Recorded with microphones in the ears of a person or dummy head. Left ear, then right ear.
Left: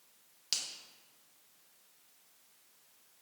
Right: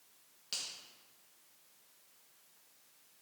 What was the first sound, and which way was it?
A finger snap, 30° left (ahead or behind).